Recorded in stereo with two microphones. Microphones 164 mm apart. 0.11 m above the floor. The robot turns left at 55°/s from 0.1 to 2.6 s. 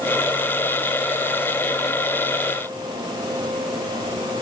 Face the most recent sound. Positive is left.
No sound to turn to.